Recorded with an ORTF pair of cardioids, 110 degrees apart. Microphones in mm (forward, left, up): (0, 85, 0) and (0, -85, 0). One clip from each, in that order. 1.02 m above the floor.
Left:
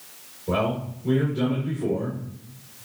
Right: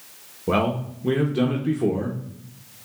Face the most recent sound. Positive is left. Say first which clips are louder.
# right 2 dB
turn(degrees=-55)